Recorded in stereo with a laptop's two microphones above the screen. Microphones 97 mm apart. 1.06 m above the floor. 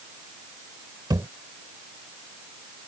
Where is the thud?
45° right (ahead or behind).